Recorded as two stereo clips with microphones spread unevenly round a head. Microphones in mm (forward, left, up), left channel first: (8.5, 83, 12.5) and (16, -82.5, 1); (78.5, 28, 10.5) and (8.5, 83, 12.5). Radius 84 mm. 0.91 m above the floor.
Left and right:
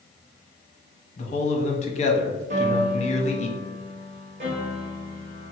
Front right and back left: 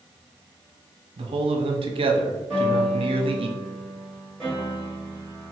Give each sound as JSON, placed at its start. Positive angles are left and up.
{"t": 1.2, "sound": "a man speaking", "azimuth_deg": 145, "distance_m": 0.8}
{"t": 2.5, "sound": "a piano", "azimuth_deg": -130, "distance_m": 1.1}